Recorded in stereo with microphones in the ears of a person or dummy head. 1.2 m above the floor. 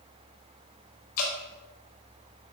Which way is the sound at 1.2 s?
50° left (ahead or behind).